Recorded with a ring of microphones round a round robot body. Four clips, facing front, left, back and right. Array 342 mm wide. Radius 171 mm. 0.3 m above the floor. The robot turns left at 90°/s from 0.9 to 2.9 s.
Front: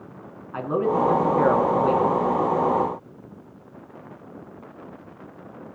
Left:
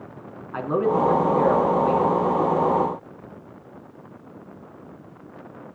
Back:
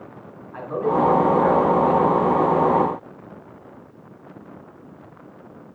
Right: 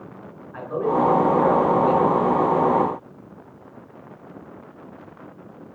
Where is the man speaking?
55° left, 3.5 m; by 2.1 s 55° right, 3.5 m.